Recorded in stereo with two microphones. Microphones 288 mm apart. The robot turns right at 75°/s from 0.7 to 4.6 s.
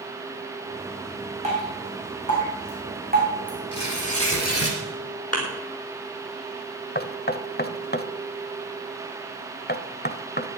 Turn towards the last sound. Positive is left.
turn(degrees=35)  # may be behind; listen again after turning